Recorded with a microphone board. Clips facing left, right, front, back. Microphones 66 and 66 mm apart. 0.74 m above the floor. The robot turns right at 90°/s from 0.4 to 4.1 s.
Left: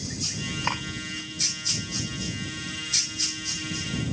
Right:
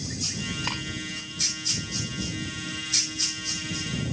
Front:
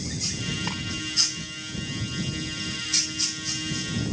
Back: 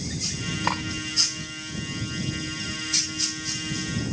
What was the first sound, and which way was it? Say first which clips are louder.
Cutlery clinking: left 6 dB, back 6 dB; 150° left.